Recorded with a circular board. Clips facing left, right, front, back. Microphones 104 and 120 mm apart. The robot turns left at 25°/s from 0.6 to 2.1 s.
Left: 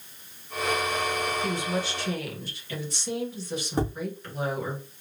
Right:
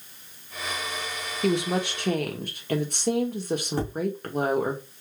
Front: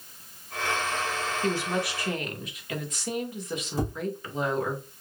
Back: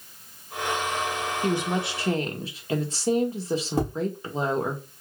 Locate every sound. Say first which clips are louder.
1.4 s a woman speaking: right 4 dB, back 2 dB; 105° right, 1.0 m; by 4.8 s 120° right, 1.0 m
3.8 s tapping: left 2 dB, back 2 dB; 160° left, 2 m